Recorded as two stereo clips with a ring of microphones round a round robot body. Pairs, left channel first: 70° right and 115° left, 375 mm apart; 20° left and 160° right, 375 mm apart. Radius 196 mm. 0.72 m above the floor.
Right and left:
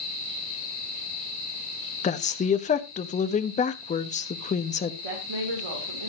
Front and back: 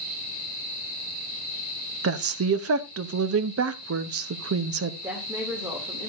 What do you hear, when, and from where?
2.0 s a woman speaking: 130° right, 1.0 m
5.0 s a woman speaking: 120° left, 3 m